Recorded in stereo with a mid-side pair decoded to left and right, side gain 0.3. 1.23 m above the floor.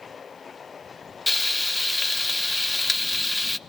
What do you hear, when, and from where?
1.3 s frying: 20° left, 1.0 m